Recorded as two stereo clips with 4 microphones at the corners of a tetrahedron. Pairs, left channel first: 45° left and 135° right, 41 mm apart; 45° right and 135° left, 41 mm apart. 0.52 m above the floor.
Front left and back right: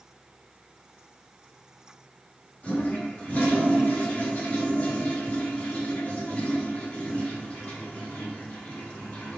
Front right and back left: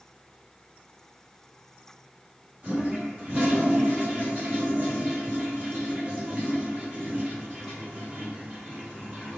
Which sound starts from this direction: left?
A toilet flushing, at 2.6 s.